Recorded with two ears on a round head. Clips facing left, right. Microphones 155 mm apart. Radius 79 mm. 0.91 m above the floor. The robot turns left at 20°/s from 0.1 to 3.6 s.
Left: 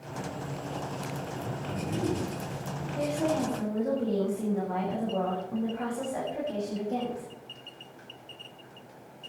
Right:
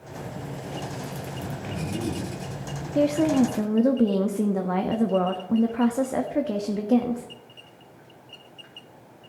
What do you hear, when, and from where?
1.4 s a man speaking: 75° right (ahead or behind), 6.5 m; by 2.9 s 50° right (ahead or behind), 6.5 m
3.0 s a woman speaking: 70° right (ahead or behind), 1.3 m; by 7.3 s 75° right (ahead or behind), 1.3 m